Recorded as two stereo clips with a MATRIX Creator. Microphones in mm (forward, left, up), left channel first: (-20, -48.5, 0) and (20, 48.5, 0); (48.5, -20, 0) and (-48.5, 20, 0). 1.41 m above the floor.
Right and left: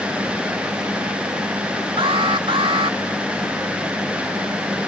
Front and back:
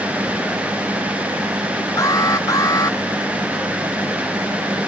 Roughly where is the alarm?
Ahead left.